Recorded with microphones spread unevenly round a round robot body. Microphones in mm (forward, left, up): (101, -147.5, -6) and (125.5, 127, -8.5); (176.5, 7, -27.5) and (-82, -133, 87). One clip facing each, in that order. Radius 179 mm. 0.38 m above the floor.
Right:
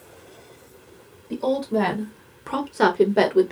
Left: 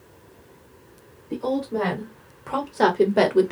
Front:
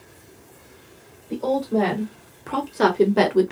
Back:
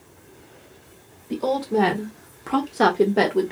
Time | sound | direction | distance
1.3 | a woman speaking | 85° right | 1.5 m